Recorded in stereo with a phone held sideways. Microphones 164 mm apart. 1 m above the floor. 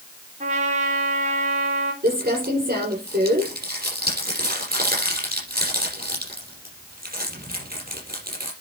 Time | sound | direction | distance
0.4 | a trumpet | 45° right (ahead or behind) | 3.5 m
2.0 | crumpling | 60° right (ahead or behind) | 5.5 m